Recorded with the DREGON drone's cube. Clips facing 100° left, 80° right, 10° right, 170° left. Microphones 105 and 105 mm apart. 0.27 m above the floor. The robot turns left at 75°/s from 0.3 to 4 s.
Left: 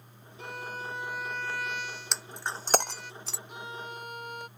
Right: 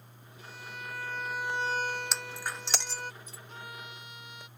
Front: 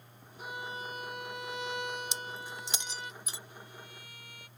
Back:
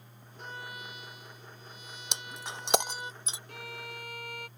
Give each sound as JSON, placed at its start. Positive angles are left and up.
{"t": 0.4, "sound": "a violin", "azimuth_deg": 75}
{"t": 2.1, "sound": "breaking glass", "azimuth_deg": -170}
{"t": 3.5, "sound": "a violin", "azimuth_deg": 180}